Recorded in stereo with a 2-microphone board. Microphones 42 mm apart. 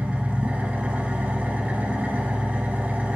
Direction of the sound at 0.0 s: 35° right (ahead or behind).